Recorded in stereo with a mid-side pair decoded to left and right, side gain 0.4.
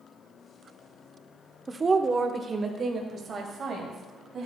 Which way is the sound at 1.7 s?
30° right.